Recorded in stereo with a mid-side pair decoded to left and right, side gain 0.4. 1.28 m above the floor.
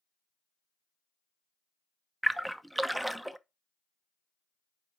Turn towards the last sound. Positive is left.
turn(degrees=-5)